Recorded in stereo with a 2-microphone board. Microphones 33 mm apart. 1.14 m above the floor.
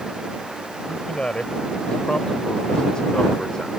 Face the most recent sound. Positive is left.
turn(degrees=20)  # may be behind; listen again after turning